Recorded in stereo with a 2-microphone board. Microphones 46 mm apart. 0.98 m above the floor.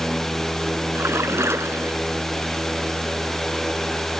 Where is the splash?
75° right (ahead or behind).